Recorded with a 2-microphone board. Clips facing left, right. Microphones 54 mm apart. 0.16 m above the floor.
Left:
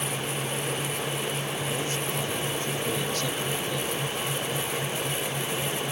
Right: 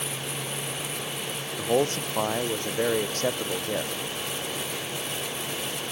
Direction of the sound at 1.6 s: 60° right (ahead or behind).